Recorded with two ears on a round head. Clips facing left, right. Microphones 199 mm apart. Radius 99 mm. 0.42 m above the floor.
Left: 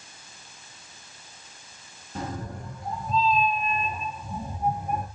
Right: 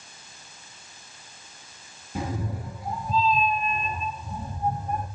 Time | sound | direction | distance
2.1 | a cat meowing | 10° right (ahead or behind) | 3.5 m